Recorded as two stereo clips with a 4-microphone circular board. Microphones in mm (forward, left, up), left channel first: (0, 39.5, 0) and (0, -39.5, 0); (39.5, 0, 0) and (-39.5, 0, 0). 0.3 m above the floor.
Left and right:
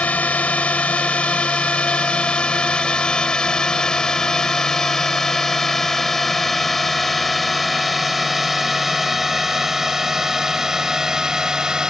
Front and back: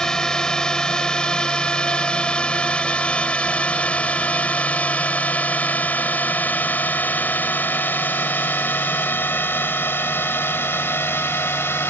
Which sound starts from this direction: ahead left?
A drone, at 0.0 s.